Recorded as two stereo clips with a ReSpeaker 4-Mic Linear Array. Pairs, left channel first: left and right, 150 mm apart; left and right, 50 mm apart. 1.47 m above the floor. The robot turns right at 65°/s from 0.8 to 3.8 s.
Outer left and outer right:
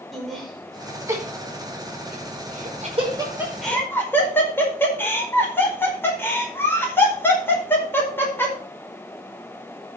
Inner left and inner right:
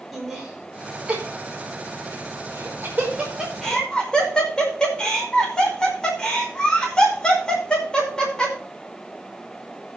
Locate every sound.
0.1 s laughter: centre (ahead or behind), 4.5 m; by 8.6 s 15° left (ahead or behind), 4.5 m